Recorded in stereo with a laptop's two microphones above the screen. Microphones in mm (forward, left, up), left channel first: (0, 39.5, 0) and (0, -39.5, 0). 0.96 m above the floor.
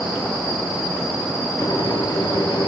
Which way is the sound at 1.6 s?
60° left (ahead or behind).